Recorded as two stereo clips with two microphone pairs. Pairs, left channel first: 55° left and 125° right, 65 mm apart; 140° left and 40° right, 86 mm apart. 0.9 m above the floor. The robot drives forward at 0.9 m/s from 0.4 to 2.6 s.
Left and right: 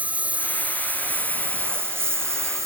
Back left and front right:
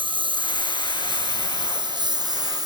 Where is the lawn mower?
55° right; by 2.7 s 80° right.